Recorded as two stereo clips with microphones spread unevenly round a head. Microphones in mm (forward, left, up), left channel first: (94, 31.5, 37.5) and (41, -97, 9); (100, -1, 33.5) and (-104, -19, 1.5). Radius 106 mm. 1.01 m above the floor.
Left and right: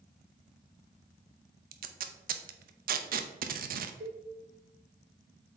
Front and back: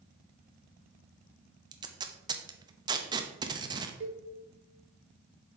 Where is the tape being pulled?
105° right, 0.6 m.